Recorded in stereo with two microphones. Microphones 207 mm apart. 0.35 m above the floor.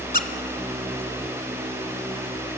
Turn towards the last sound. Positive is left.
turn(degrees=45)  # may be behind; listen again after turning